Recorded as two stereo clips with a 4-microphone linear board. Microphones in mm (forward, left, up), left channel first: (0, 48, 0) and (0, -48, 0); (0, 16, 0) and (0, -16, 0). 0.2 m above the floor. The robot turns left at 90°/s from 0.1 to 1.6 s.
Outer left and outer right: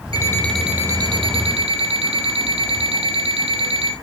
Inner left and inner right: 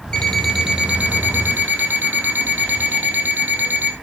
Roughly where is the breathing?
No breathing in this recording.